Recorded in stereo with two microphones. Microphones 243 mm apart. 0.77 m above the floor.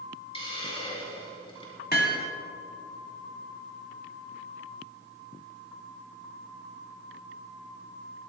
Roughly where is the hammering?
Left.